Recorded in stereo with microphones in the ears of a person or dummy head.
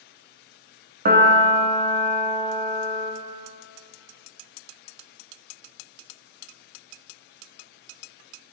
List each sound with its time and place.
1.1 s a piano: 50° right (ahead or behind), 1.3 m